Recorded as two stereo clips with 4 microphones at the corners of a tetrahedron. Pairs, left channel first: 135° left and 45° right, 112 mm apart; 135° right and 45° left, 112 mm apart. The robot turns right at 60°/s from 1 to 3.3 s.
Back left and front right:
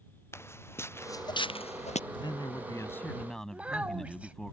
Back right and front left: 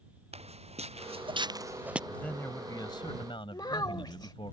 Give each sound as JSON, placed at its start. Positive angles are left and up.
{"t": 0.3, "sound": "footsteps", "azimuth_deg": 70}
{"t": 2.1, "sound": "a man speaking", "azimuth_deg": 145}
{"t": 3.5, "sound": "a child speaking", "azimuth_deg": -115}